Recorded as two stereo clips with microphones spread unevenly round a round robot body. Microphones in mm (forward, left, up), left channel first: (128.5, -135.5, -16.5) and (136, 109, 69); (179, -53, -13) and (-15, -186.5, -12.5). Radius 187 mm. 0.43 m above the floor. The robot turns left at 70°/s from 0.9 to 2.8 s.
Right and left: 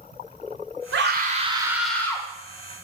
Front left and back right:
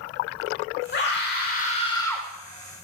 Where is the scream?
45° left, 1.5 m; by 2.3 s 50° right, 1.5 m.